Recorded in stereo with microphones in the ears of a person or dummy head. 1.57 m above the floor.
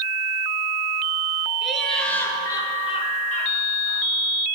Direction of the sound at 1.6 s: Centre (ahead or behind).